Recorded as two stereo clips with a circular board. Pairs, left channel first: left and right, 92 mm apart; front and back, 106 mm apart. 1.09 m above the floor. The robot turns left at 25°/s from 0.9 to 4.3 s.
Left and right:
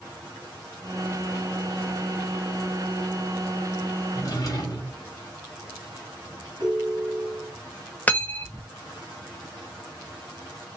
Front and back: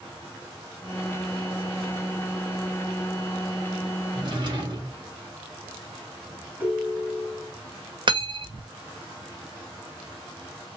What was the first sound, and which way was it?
A drawer, 140° left.